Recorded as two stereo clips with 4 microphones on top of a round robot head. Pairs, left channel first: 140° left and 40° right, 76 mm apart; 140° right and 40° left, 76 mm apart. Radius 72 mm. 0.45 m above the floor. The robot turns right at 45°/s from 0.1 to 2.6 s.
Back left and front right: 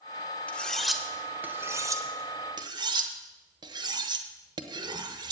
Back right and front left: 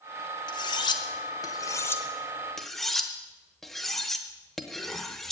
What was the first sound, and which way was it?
Cutlery clinking, 150° right.